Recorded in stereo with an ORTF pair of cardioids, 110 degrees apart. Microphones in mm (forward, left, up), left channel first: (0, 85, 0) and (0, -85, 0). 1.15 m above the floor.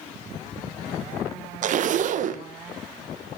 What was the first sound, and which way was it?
A zipper, 50° right.